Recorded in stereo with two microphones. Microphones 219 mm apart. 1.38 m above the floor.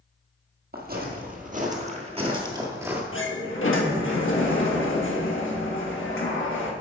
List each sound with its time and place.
0.7 s footsteps: 50° right (ahead or behind), 2 m; by 3.0 s 10° right (ahead or behind), 1.3 m
3.1 s a sliding door: 70° left (ahead or behind), 1.3 m